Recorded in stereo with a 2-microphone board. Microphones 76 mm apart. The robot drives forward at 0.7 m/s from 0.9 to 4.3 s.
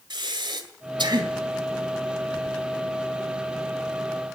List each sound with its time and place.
0.1 s breathing: 75° right (ahead or behind), 2 m; by 1.3 s 70° right (ahead or behind), 2 m